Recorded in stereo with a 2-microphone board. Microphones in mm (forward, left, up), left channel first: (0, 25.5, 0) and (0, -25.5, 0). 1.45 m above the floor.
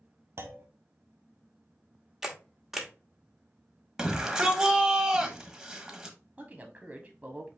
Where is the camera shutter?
10° right (ahead or behind), 0.9 m.